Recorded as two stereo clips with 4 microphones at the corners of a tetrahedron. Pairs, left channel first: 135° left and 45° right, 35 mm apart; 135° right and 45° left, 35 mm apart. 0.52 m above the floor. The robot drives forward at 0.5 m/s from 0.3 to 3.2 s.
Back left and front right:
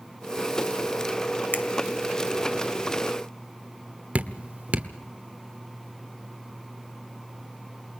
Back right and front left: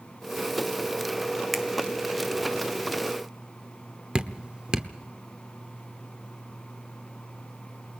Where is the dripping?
10° right, 1.1 m.